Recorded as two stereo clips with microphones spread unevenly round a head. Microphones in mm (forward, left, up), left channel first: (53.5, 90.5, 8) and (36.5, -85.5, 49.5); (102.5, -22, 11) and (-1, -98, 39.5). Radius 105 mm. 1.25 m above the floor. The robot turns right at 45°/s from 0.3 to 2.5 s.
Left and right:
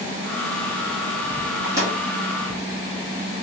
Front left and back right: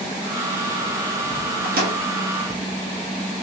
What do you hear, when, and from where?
1.6 s a microwave: 175° right, 1.6 m; by 2.0 s 160° right, 1.6 m